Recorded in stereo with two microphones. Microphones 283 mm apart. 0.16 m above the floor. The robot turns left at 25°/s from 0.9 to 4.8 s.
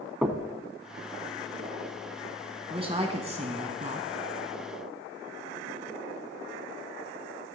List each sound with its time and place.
0.2 s knocking: 5° right (ahead or behind), 1.1 m
2.7 s a woman speaking: 20° right (ahead or behind), 1.4 m; by 4.1 s 30° right (ahead or behind), 1.4 m